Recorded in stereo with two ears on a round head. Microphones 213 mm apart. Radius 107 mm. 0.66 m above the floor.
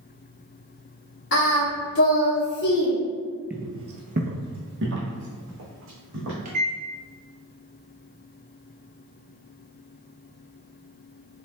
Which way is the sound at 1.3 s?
50° left (ahead or behind).